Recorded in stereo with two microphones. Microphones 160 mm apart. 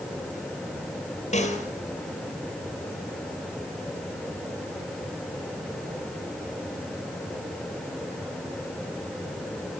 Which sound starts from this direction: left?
A snare drum, at 1.3 s.